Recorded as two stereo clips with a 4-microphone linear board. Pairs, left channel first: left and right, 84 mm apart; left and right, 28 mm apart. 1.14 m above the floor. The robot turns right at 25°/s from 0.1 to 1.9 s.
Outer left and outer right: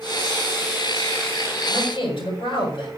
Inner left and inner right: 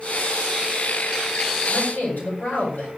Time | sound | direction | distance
1.7 | a man speaking | 75° left (ahead or behind) | 7 m